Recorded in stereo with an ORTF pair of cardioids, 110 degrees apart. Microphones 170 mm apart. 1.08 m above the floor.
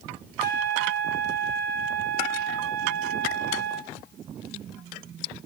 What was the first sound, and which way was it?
A trumpet, 60° right.